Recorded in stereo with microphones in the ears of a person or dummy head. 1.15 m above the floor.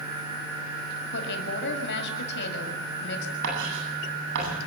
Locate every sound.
1.1 s a woman speaking: 60° left (ahead or behind), 6 m
3.4 s writing: 70° right (ahead or behind), 9 m